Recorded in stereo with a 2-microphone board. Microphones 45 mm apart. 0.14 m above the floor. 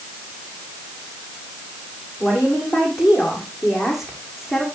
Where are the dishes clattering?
No dishes clattering in this recording.